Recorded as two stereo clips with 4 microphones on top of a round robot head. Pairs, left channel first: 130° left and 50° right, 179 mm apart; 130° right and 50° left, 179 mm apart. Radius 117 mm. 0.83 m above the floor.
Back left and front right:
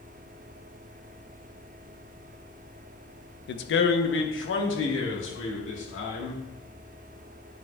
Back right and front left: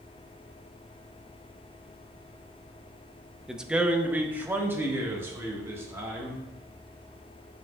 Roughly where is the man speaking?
Behind left.